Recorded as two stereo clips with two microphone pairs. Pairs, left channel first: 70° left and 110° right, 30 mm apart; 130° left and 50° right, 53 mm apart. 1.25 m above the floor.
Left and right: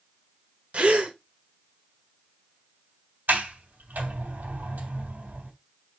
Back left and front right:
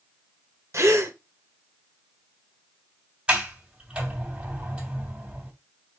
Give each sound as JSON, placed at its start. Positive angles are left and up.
{"t": 0.7, "sound": "a gasp", "azimuth_deg": -65, "distance_m": 1.5}
{"t": 3.3, "sound": "a sliding door", "azimuth_deg": -115, "distance_m": 2.5}